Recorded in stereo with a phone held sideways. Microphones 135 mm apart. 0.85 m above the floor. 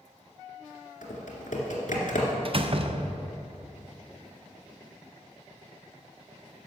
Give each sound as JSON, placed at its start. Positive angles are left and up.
{"t": 1.0, "sound": "typing on a keyboard", "side_deg": 70, "distance_m": 2.0}
{"t": 2.5, "sound": "a door slam", "side_deg": -45, "distance_m": 0.5}